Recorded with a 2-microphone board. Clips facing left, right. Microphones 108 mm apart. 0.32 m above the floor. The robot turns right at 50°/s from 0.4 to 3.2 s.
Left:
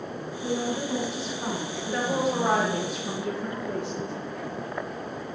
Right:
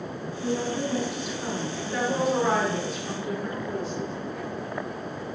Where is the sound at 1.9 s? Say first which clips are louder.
Right 1 dB; 10° left, 4.5 m; by 4.1 s 75° left, 4.5 m.